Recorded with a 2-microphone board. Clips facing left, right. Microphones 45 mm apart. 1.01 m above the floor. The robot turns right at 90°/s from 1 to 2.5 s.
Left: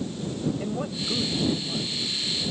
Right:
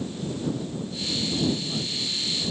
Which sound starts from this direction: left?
A man speaking, at 0.6 s.